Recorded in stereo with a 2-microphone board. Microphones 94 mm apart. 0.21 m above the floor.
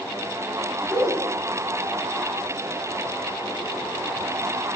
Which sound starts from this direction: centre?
A woman speaking, at 0.8 s.